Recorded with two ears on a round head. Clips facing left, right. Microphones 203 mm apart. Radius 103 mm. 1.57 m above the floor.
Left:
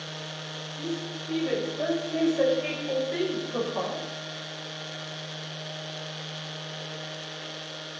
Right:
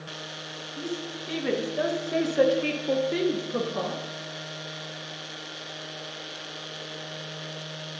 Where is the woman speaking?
80° right, 2.5 m; by 4.0 s 15° right (ahead or behind), 1.7 m.